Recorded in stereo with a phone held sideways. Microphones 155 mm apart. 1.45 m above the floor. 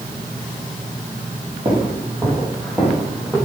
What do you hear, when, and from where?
1.6 s footsteps: 35° right (ahead or behind), 2.5 m; by 3.4 s centre (ahead or behind), 3.5 m